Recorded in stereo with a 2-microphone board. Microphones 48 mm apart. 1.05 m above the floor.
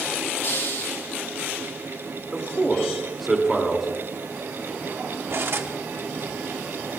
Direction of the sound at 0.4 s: 55° left (ahead or behind).